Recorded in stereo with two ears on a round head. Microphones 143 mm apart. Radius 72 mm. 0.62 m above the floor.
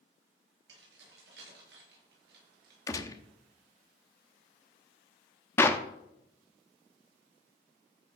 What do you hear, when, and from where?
0.7 s keys jangling: 75° right (ahead or behind), 7 m; by 2.8 s 70° right (ahead or behind), 6 m
2.9 s a gunshot: 20° left (ahead or behind), 0.8 m
5.6 s a clap: 15° left (ahead or behind), 0.9 m